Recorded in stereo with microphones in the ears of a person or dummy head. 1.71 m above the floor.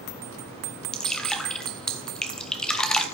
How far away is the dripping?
About 0.9 m.